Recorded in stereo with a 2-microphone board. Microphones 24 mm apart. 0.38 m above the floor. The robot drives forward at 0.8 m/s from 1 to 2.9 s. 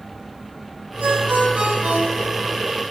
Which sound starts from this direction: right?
A ringtone, at 1.0 s.